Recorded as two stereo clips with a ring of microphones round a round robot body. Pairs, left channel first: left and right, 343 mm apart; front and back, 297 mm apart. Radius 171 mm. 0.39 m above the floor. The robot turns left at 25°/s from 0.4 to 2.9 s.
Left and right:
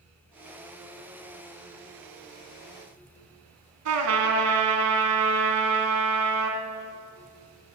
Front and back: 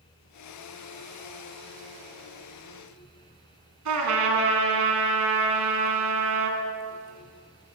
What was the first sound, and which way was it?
A trumpet, 135° right.